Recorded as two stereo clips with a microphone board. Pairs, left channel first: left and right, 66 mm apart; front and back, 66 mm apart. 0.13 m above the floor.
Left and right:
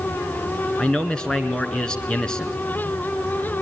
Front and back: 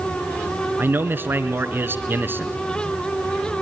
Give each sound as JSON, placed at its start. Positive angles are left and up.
{"t": 0.8, "sound": "a man speaking", "azimuth_deg": 160, "distance_m": 1.9}